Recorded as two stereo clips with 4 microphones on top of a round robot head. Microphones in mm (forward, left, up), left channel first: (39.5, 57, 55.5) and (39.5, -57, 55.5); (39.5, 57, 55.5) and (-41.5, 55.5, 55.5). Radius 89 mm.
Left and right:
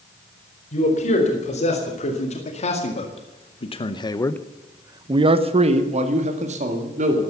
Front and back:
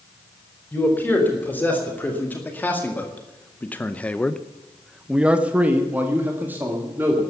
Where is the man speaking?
70° left, 4 m; by 7.2 s 105° right, 3 m.